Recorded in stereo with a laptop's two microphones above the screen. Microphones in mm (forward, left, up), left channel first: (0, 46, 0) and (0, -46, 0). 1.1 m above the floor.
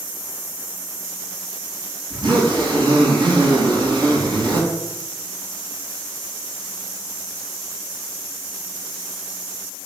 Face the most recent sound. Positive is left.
turn(degrees=-55)  # may be behind; listen again after turning